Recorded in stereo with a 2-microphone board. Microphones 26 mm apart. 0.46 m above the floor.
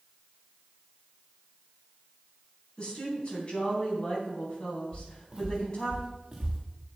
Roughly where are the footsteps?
Right.